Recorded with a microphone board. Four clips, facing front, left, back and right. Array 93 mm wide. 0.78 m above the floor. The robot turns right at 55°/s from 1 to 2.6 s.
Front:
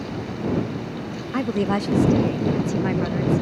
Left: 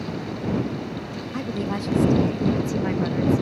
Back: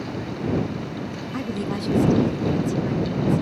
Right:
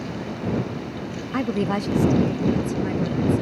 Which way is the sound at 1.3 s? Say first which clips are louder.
Right 5 dB, front 6 dB; 55° right.